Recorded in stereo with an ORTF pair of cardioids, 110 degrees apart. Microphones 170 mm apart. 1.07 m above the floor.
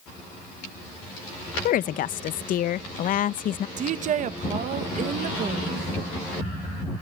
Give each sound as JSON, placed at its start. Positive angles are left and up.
{"t": 1.6, "sound": "a woman speaking", "azimuth_deg": 55, "distance_m": 0.6}
{"t": 3.8, "sound": "a woman speaking", "azimuth_deg": -50, "distance_m": 0.9}